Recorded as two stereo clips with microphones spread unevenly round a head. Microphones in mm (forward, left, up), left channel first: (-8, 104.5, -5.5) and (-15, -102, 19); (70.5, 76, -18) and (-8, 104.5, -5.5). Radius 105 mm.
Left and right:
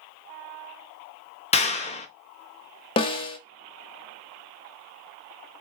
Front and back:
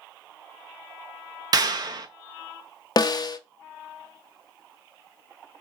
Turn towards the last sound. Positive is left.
turn(degrees=20)